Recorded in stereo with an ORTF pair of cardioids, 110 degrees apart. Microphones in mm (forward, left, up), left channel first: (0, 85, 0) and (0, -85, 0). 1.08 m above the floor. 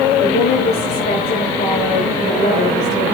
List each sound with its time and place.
0.2 s a woman speaking: 65° left, 5 m